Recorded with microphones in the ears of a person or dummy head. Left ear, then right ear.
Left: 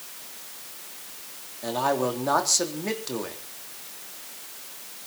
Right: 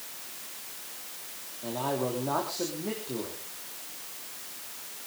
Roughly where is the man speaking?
Left.